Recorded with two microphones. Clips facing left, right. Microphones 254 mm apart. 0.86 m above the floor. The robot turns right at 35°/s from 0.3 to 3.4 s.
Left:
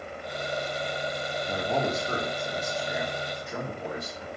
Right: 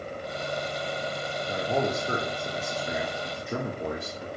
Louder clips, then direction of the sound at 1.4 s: Right 2 dB; 175° left.